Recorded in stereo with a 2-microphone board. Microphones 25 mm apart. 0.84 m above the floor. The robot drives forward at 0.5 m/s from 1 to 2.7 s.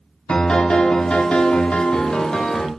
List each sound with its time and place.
0.3 s a piano: 50° left (ahead or behind), 0.6 m; by 2.7 s 40° left (ahead or behind), 0.7 m